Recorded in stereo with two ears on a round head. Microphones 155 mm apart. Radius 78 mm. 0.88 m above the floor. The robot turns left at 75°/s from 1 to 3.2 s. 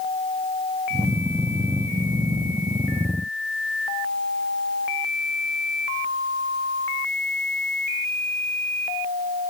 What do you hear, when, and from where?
Only background noise.